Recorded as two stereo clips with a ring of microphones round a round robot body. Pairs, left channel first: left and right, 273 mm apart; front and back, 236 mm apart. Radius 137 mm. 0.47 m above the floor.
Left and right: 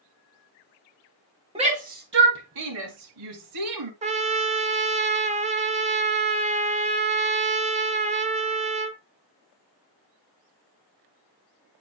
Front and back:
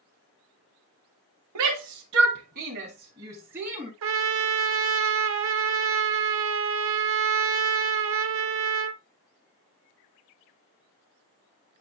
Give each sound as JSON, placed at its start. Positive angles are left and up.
{"t": 1.6, "sound": "a shout", "azimuth_deg": -160, "distance_m": 2.0}
{"t": 4.0, "sound": "a trumpet", "azimuth_deg": -155, "distance_m": 1.0}